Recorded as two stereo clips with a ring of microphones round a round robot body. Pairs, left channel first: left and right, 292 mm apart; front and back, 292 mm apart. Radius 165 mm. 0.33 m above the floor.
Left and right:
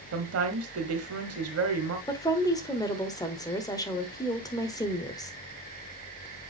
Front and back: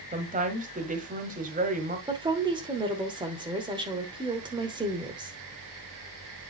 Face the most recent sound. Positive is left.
turn(degrees=140)